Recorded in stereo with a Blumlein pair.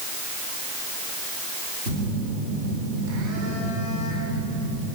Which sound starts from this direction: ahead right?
A phone buzzing, at 1.9 s.